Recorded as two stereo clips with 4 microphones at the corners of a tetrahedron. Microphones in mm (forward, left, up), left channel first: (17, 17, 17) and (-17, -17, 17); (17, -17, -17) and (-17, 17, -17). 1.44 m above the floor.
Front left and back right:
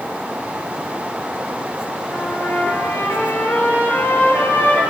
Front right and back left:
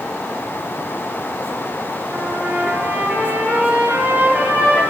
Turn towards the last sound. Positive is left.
turn(degrees=75)